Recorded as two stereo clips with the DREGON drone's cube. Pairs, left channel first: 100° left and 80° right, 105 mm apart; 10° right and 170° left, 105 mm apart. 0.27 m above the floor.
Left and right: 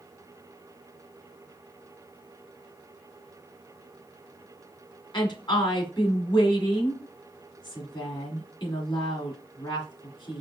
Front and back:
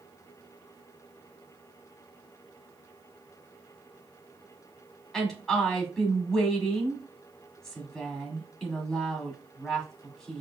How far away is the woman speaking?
About 2.0 m.